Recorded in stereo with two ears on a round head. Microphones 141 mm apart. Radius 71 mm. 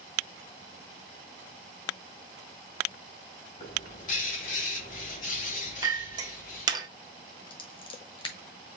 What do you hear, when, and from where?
3.6 s a bird: 50° left (ahead or behind), 2.5 m
5.8 s a clink: 25° right (ahead or behind), 1.1 m
7.5 s scissors: 30° left (ahead or behind), 1.3 m